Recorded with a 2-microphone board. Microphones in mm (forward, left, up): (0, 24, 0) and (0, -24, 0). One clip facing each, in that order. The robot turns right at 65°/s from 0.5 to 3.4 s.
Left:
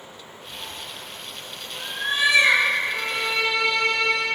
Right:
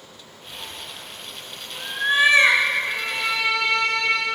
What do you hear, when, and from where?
0.5 s a cat meowing: 45° left (ahead or behind), 0.9 m; by 2.6 s 45° right (ahead or behind), 0.9 m
2.9 s a violin: 20° right, 1.7 m; by 4.2 s 15° left, 1.7 m